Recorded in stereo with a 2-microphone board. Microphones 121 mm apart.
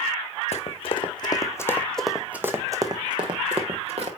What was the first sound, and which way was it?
Running footsteps, 55° left (ahead or behind).